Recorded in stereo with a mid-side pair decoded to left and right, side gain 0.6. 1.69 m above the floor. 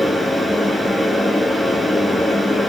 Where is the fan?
5° left, 5.5 m.